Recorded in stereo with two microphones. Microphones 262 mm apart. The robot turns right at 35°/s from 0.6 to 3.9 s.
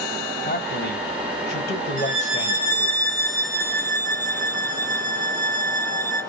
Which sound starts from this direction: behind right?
A violin, at 2.0 s.